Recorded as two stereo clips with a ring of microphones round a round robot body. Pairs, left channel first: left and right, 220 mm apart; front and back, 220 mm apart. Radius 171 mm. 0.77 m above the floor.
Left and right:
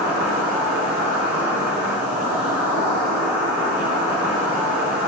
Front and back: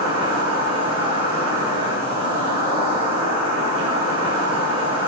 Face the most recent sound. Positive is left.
turn(degrees=-175)